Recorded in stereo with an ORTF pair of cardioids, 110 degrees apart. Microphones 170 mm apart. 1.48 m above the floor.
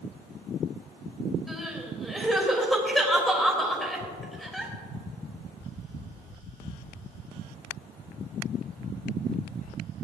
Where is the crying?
Straight ahead, 3 m.